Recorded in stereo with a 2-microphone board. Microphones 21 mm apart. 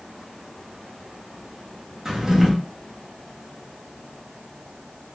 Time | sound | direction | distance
2.0 | a drawer | 25° right (ahead or behind) | 0.8 m